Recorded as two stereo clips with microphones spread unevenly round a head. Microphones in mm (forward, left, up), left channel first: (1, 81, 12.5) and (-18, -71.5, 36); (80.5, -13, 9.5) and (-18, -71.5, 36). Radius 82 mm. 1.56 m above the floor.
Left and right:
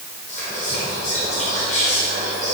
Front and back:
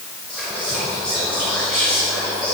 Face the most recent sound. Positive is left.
turn(degrees=130)